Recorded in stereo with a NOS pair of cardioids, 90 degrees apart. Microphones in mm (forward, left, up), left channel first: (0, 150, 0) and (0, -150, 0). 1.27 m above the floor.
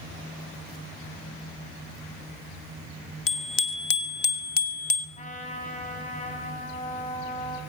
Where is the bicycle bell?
45° left, 3 m; by 5.1 s 25° left, 2.5 m.